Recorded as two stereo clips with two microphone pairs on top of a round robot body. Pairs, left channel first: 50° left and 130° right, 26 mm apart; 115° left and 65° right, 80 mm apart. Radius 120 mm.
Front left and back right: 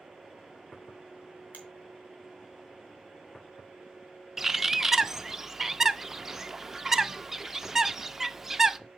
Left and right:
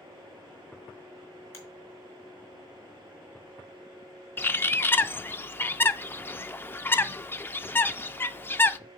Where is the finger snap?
60° left, 2.5 m.